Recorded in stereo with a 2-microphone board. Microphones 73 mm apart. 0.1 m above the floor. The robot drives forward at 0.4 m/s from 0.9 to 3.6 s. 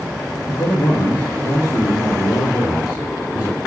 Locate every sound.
0.5 s a man speaking: 60° left (ahead or behind), 3.5 m; by 3.6 s 50° left (ahead or behind), 4 m